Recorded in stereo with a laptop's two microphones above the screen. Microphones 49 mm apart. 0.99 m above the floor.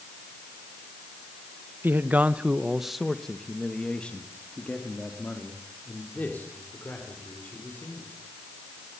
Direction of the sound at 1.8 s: 40° right (ahead or behind).